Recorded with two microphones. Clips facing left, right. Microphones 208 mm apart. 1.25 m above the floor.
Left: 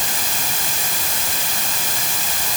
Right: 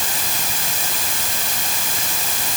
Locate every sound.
Only background noise.